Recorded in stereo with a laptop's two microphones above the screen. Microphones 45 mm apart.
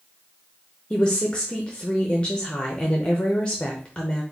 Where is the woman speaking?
20° left (ahead or behind), 0.6 m.